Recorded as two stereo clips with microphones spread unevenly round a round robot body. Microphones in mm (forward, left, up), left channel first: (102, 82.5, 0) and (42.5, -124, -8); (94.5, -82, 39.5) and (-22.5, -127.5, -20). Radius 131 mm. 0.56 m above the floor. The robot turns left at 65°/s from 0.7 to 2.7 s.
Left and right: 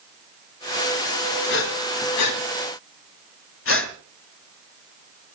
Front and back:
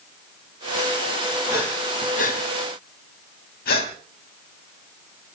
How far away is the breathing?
About 2.5 m.